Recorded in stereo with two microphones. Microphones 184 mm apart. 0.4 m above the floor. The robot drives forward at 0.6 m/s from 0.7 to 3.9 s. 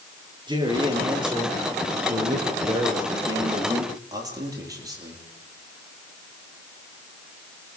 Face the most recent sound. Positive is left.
turn(degrees=-20)  # may be behind; listen again after turning